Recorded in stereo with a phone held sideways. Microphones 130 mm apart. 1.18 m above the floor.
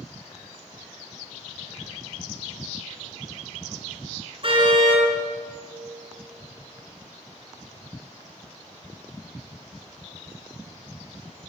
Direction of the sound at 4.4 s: 45° right (ahead or behind).